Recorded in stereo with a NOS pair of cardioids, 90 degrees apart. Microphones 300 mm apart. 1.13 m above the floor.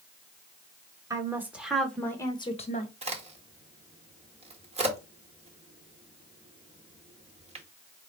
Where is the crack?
20° right, 1.7 m.